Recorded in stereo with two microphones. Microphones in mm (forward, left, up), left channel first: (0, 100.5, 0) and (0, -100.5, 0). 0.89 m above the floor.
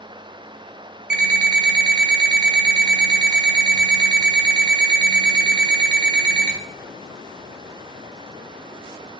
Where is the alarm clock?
60° right (ahead or behind), 1.7 m.